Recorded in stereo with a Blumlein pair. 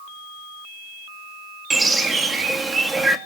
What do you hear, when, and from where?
1.7 s a bird: 10° right, 1.8 m